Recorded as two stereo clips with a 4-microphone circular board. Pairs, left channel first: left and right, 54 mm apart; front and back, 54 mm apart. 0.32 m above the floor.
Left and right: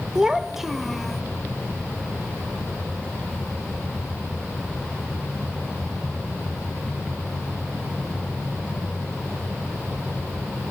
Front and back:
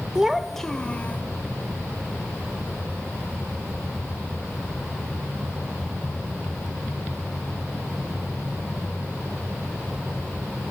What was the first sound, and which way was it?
A child speaking, 135° right.